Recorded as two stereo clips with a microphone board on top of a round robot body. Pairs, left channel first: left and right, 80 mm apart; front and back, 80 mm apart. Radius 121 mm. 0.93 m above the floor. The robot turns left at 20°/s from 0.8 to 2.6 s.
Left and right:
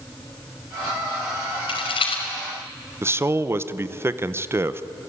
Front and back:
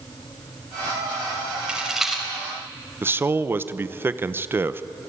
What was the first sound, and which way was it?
A rattle, 100° left.